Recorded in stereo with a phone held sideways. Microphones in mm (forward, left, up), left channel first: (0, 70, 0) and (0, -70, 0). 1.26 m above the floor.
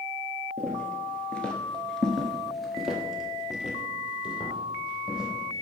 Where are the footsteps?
10° left (ahead or behind), 1.8 m; by 5.6 s 5° right (ahead or behind), 3.5 m.